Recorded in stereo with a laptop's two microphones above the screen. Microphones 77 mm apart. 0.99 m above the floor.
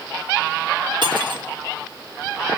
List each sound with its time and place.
1.0 s cutlery clinking: 70° right (ahead or behind), 1.7 m